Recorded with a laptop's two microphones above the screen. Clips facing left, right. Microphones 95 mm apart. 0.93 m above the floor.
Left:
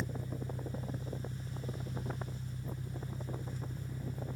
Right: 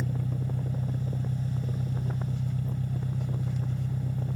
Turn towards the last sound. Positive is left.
turn(degrees=-85)